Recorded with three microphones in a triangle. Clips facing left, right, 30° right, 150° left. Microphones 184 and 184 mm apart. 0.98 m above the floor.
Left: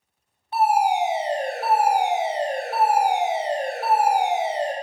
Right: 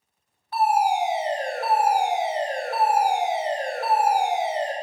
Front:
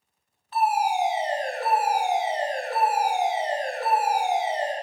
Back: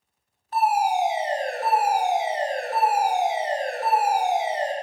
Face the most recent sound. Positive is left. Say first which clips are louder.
# left 1 dB, back 2 dB
turn(degrees=145)